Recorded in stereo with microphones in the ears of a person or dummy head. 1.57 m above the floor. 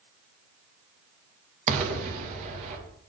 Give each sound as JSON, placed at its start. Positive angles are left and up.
{"t": 1.7, "sound": "an explosion", "side_deg": -40, "distance_m": 2.0}